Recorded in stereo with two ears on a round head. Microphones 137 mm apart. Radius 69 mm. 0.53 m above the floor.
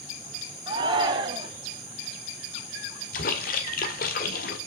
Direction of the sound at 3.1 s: 60° left (ahead or behind).